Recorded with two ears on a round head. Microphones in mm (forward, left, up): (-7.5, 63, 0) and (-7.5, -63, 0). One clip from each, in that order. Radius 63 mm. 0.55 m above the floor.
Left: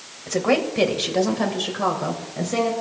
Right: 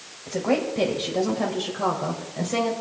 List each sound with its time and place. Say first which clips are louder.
0.3 s a woman speaking: left 4 dB; 60° left (ahead or behind), 3 m; by 2.7 s 5° right (ahead or behind), 3 m